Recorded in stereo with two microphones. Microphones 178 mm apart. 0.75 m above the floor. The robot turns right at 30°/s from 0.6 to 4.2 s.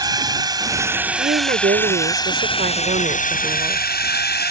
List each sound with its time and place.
0.0 s a drone: 25° right; by 4.5 s 85° left
1.2 s a woman speaking: 115° right; by 3.8 s 35° right